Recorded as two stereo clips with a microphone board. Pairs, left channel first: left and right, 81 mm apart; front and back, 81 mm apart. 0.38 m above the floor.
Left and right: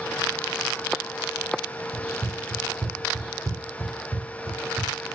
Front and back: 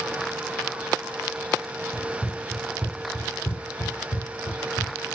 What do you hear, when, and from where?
1.9 s running footsteps: 140° right, 1.2 m; by 4.9 s straight ahead, 1.6 m